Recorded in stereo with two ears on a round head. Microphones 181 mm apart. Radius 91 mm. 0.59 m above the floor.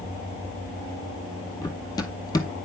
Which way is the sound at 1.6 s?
20° left (ahead or behind).